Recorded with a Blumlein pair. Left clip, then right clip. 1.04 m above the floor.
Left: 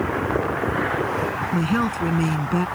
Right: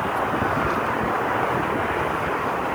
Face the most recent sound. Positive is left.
turn(degrees=50)